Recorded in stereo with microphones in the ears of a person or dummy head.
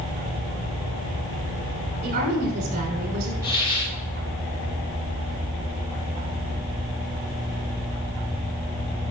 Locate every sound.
2.0 s a woman speaking: 60° right (ahead or behind), 6.5 m
3.4 s a hiss: 15° right (ahead or behind), 4.5 m